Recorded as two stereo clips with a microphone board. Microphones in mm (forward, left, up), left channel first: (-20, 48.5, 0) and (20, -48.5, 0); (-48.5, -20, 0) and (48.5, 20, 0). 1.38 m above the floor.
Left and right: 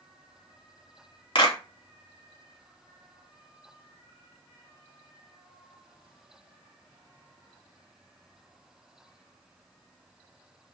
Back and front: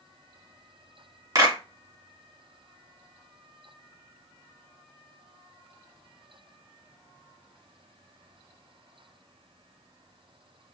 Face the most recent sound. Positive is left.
turn(degrees=80)